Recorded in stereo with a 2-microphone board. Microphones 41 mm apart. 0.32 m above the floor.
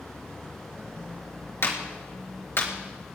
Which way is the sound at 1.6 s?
70° left (ahead or behind).